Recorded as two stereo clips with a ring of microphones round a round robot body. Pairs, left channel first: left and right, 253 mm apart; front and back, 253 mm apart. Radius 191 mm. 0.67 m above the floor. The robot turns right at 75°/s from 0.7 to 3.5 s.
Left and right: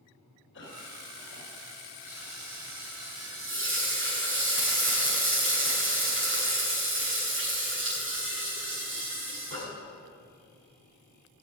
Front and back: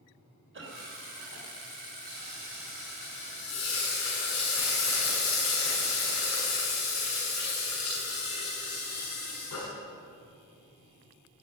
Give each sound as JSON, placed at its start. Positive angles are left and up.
{"t": 0.5, "sound": "a cough", "azimuth_deg": 145, "distance_m": 3.5}
{"t": 2.1, "sound": "frying", "azimuth_deg": -155, "distance_m": 6.5}